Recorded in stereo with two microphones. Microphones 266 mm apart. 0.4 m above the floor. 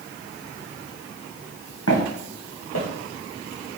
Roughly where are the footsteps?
Left.